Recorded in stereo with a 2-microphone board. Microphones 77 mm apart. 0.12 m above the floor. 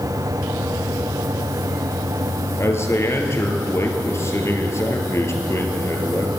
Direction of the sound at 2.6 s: 35° left (ahead or behind).